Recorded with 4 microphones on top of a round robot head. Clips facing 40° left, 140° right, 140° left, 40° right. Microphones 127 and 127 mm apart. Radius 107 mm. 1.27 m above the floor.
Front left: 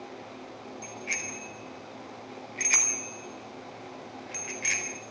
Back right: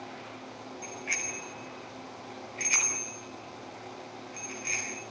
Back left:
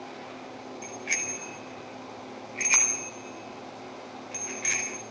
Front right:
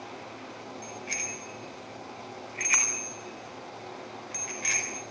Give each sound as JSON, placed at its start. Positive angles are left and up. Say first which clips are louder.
{"t": 0.8, "sound": "a bicycle bell", "louder": "even, back left 2 dB", "azimuth_deg": 110, "distance_m": 4.5}